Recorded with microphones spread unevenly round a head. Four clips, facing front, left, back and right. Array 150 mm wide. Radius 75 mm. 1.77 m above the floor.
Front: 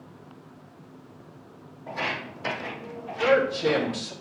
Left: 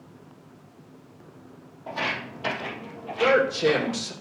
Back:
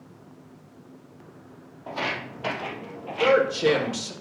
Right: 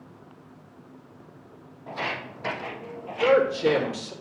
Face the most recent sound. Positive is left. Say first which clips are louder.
# right 1 dB, back 2 dB
turn(degrees=135)